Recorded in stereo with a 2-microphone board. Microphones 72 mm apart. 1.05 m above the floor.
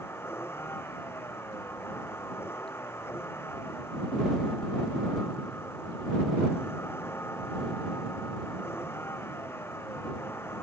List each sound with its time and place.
0.0 s a vehicle: 35° left (ahead or behind)